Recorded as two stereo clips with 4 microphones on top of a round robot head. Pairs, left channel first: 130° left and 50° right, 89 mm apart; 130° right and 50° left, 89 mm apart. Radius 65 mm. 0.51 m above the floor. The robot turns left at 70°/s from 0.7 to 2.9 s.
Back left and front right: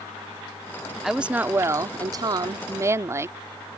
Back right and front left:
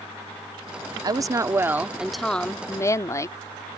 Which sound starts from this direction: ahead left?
A woman speaking, at 1.0 s.